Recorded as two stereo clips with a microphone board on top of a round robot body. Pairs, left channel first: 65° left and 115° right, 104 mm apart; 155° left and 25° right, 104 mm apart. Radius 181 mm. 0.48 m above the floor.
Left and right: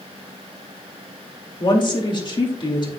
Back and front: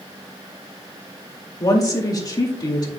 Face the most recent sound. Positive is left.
turn(degrees=105)